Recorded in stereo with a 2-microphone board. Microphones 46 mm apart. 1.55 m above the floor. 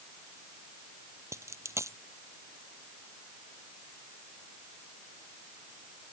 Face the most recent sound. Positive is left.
turn(degrees=-75)  # may be behind; listen again after turning